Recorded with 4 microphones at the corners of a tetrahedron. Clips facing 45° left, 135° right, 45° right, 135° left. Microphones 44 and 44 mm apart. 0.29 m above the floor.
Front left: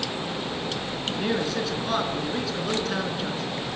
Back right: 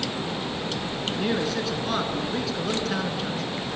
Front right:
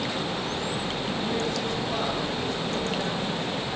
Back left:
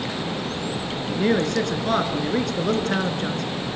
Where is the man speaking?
135° left, 3.5 m.